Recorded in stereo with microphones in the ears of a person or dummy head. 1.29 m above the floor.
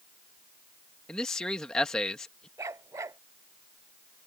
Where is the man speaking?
Centre (ahead or behind).